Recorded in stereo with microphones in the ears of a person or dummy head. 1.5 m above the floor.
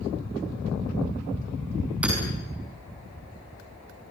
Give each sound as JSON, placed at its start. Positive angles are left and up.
{"t": 2.0, "sound": "hammering", "side_deg": -5, "distance_m": 7.0}